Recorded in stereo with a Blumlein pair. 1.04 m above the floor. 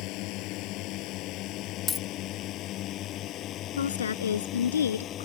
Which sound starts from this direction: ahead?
A dropped coin, at 1.9 s.